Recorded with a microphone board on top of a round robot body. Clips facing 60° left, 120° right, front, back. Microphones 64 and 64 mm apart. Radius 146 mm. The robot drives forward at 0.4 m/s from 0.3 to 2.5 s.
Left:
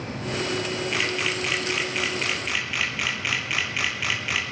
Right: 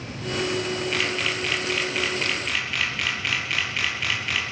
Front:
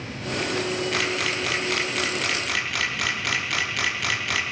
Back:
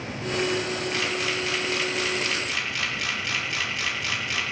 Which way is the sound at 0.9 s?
20° right.